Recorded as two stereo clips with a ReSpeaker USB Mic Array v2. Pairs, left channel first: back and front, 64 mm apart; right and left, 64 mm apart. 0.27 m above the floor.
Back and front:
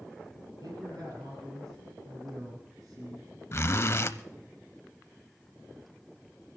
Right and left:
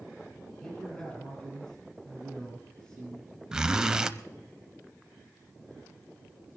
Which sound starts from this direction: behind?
A zipper, at 3.5 s.